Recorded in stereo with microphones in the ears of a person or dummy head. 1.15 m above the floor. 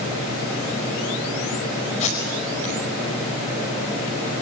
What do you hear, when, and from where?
2.0 s tape being pulled: 35° left (ahead or behind), 5 m